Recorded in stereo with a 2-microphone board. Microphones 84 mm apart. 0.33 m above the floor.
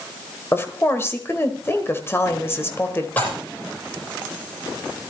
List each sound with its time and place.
0.5 s a woman speaking: 25° left (ahead or behind), 1.5 m
3.2 s dishes clattering: 20° left (ahead or behind), 7 m